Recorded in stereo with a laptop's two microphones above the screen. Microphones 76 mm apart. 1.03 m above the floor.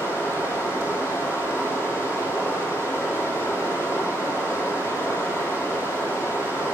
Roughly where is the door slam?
No door slam in this recording.